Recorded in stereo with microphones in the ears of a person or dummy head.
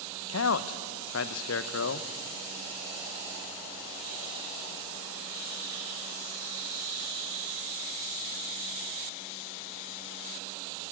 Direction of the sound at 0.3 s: 70° left (ahead or behind).